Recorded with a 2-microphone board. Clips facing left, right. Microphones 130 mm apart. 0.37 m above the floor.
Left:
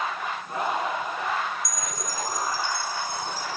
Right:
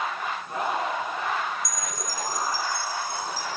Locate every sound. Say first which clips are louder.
1.6 s a chime: even; centre (ahead or behind), 2.5 m